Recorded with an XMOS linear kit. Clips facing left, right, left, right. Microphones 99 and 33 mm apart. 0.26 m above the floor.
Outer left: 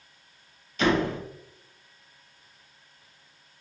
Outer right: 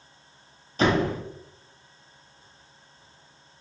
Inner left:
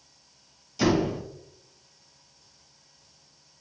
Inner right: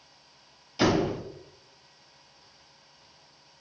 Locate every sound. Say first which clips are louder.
0.8 s a door slam: outer right 1 dB, even; 35° right (ahead or behind), 0.8 m